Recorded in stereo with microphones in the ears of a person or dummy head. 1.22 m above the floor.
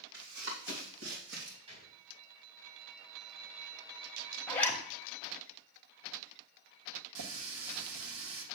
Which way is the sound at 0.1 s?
60° right (ahead or behind).